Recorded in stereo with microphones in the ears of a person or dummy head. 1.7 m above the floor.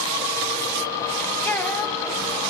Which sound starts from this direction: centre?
A child speaking, at 1.4 s.